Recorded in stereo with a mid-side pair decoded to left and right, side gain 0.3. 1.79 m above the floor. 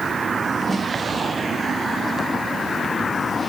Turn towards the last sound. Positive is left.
turn(degrees=-30)